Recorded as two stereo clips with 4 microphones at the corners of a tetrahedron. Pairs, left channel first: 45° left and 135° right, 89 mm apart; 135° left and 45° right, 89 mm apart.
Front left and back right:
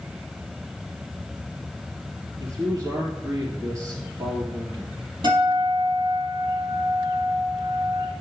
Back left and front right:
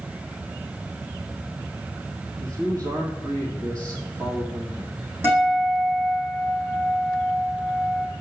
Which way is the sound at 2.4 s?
85° right.